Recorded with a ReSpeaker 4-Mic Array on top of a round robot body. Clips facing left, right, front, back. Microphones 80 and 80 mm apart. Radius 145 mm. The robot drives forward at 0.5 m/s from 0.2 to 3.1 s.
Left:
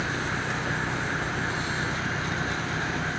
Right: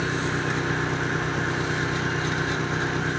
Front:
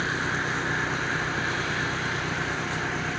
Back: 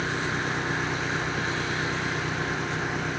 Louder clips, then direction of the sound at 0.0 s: Right 3 dB, front 1 dB; 100° right.